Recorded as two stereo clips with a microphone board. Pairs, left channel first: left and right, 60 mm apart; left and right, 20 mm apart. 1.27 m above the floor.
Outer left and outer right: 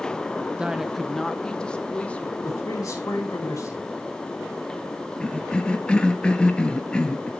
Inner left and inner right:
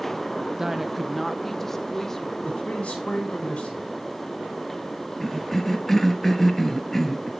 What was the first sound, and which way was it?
A woman speaking, 15° right (ahead or behind).